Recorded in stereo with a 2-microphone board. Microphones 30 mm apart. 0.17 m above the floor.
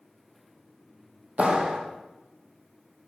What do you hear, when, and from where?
1.4 s a clap: 50° right (ahead or behind), 5 m